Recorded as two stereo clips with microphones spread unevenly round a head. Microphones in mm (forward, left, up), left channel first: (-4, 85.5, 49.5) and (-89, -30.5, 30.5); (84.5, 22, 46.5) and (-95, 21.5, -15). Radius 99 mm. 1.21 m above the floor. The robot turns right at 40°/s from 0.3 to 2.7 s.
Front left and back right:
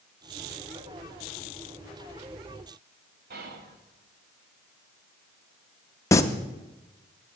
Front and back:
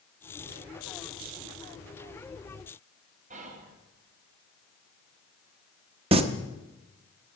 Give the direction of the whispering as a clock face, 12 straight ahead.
4 o'clock.